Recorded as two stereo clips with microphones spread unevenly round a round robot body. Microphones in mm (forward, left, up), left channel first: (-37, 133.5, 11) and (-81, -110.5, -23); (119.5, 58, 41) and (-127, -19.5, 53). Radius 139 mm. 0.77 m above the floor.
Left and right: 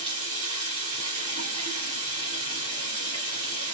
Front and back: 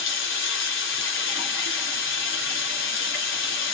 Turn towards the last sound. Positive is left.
turn(degrees=-30)